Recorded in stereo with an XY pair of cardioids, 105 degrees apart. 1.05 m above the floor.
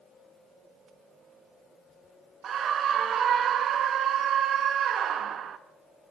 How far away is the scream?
About 1.3 m.